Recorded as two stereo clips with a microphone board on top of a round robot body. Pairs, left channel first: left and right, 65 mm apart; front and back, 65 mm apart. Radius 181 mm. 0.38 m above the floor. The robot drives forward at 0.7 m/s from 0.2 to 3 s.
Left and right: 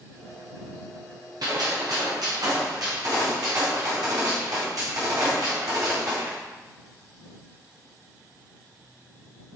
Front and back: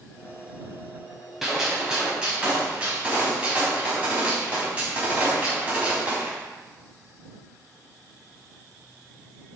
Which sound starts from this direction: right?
A gunshot, at 1.4 s.